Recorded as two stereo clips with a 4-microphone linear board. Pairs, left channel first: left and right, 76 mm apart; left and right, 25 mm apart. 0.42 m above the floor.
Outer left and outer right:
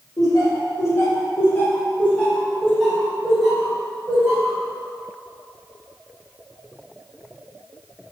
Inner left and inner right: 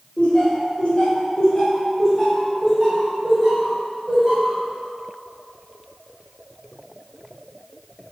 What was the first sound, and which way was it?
Laughter, 55° left (ahead or behind).